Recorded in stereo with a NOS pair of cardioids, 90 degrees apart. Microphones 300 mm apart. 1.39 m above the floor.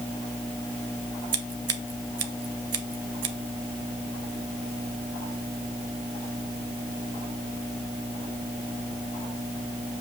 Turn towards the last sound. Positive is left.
turn(degrees=-50)